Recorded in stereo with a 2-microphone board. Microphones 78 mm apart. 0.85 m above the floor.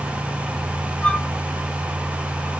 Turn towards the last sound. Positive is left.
turn(degrees=15)  # may be behind; listen again after turning